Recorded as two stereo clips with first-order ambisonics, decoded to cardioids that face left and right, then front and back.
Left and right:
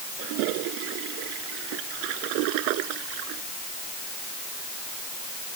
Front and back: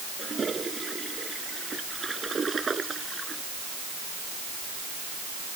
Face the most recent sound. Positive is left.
turn(degrees=-105)